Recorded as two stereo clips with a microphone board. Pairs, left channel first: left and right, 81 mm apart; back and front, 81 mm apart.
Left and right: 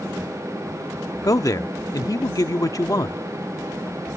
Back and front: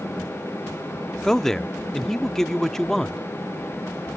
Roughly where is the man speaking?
Left.